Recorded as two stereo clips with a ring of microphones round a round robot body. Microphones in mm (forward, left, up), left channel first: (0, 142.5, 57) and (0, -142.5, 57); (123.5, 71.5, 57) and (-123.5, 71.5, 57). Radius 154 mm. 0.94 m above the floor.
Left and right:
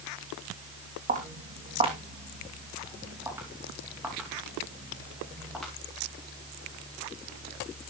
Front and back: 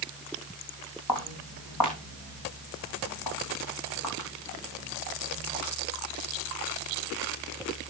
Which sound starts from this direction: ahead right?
Footsteps, at 1.1 s.